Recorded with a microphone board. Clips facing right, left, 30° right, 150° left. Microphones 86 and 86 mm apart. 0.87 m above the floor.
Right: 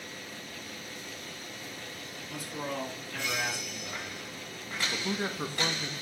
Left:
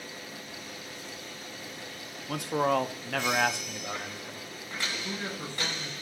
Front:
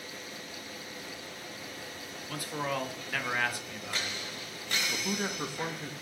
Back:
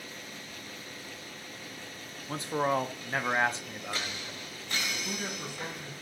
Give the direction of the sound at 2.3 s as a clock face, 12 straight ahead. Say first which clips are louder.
Left 11 dB, back 5 dB; 9 o'clock.